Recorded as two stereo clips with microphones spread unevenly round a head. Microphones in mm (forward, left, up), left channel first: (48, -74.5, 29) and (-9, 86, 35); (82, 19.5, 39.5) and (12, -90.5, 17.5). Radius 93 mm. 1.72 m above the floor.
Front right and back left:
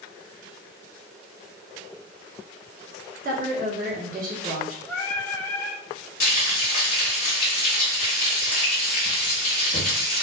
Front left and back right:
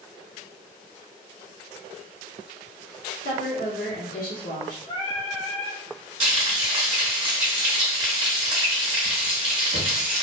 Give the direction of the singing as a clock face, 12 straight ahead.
12 o'clock.